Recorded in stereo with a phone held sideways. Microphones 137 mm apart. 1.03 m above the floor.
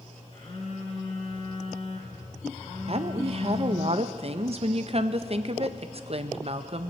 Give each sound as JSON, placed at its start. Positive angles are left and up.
{"t": 0.3, "sound": "a phone buzzing", "side_deg": 45, "distance_m": 3.0}
{"t": 2.9, "sound": "a woman speaking", "side_deg": -45, "distance_m": 0.6}